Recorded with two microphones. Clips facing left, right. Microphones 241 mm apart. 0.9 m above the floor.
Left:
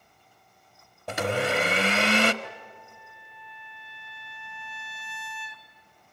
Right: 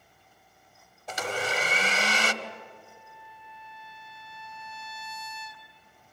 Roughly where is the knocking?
I don't hear knocking.